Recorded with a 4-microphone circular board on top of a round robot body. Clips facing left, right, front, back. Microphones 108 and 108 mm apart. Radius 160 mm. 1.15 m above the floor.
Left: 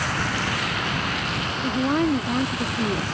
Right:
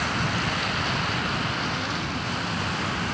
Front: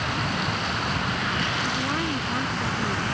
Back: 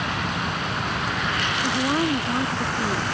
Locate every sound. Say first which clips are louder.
1.6 s a woman speaking: left 9 dB, back 5 dB; 125° left; by 3.0 s 105° left